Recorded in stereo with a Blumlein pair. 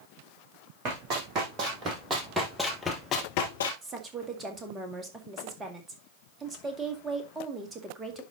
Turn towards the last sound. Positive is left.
turn(degrees=-15)